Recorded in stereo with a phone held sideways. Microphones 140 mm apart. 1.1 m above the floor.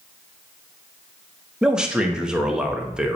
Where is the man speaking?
5° right (ahead or behind), 1.2 m.